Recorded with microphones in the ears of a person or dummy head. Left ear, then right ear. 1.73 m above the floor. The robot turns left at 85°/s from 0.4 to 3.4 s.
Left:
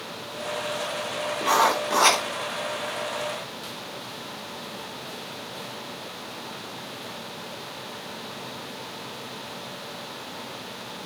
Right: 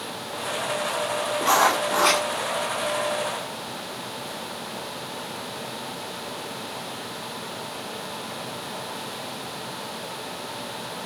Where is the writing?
175° right, 3 m; by 2.2 s 115° left, 3 m.